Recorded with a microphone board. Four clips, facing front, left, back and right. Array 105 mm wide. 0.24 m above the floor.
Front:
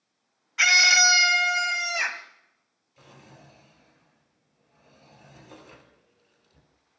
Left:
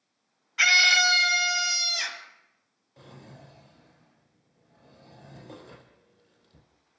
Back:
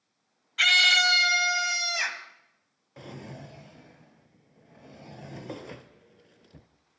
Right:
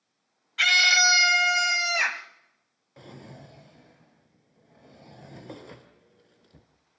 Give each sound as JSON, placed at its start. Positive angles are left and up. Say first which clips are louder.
{"t": 0.6, "sound": "a scream", "louder": "even, front 3 dB", "azimuth_deg": 35, "distance_m": 1.0}
{"t": 3.0, "sound": "a drawer", "louder": "right 3 dB, back 9 dB", "azimuth_deg": -155, "distance_m": 1.6}